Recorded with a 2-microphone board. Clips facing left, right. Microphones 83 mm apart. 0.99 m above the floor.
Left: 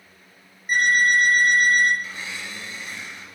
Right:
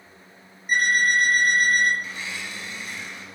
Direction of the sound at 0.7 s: 45° left (ahead or behind).